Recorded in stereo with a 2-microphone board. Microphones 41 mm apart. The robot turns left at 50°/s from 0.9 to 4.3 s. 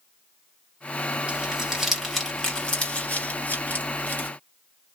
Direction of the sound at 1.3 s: 25° right (ahead or behind).